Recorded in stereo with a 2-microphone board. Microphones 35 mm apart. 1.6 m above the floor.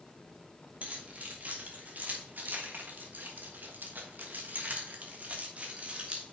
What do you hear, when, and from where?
0.8 s keys jangling: 40° right (ahead or behind), 2 m; by 6.2 s 35° right (ahead or behind), 1.7 m